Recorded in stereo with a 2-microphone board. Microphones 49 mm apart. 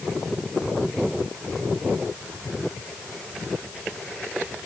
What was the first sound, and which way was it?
Only background noise.